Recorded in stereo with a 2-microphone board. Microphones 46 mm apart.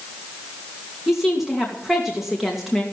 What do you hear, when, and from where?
1.1 s a woman speaking: 5° right (ahead or behind), 2.5 m